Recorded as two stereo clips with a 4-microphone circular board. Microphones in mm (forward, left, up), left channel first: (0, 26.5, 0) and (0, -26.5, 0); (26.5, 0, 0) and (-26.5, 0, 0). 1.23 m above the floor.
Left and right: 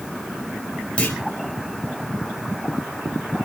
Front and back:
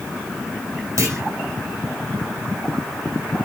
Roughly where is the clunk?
Behind.